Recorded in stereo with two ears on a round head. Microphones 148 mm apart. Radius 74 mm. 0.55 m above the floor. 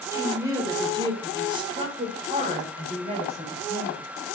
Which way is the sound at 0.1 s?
15° right (ahead or behind).